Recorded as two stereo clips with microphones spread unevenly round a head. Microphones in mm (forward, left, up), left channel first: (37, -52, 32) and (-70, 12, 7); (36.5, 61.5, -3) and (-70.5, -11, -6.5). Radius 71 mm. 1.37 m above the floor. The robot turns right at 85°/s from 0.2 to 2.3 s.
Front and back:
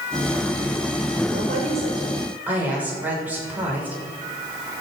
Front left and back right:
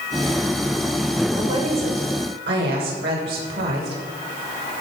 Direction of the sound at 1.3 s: 140° left.